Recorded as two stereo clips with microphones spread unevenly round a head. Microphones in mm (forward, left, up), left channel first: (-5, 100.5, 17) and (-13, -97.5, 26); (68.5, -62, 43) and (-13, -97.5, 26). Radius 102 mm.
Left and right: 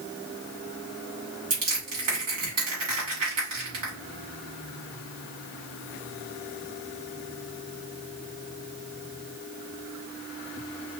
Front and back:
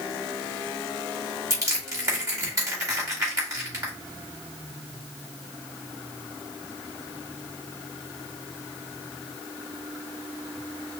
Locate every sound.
1.5 s crushing: 100° right, 3 m